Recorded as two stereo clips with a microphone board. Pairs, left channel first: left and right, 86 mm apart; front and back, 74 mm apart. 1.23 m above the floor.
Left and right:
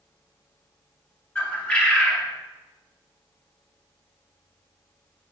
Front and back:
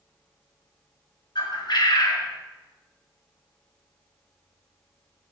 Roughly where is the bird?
Ahead.